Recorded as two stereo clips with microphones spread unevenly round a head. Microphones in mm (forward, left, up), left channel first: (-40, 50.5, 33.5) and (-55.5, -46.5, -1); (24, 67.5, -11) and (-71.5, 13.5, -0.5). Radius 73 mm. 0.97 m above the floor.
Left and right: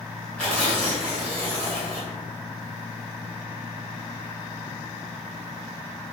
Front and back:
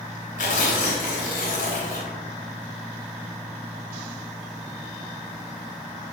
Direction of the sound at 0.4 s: Straight ahead.